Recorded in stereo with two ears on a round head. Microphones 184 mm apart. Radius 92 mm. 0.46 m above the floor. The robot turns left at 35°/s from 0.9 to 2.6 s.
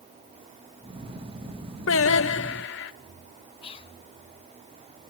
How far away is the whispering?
About 1.3 m.